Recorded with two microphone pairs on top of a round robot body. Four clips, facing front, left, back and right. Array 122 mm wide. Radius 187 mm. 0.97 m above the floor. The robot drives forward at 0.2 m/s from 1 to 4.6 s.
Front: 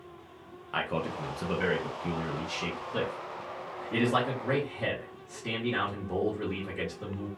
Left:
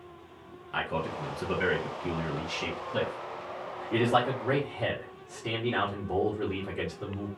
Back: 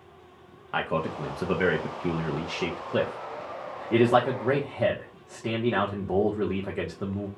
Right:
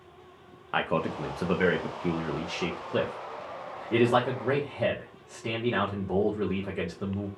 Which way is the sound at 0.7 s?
110° right.